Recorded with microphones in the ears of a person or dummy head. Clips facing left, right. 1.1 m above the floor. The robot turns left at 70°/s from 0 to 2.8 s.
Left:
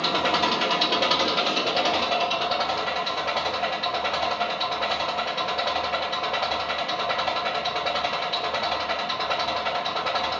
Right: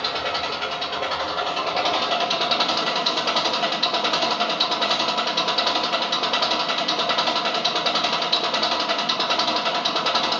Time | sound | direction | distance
0.0 | an engine running | 135° left | 1.1 m